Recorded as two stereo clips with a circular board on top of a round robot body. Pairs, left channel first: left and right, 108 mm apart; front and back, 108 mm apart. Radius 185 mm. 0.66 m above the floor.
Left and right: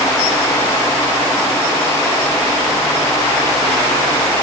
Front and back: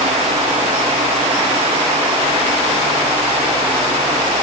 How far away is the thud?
I don't hear a thud.